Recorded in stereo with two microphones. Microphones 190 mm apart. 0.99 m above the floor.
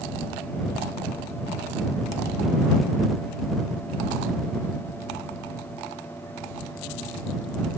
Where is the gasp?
I don't hear a gasp.